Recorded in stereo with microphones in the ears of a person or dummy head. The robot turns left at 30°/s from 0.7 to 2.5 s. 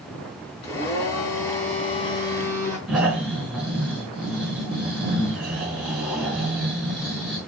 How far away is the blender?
About 3.5 m.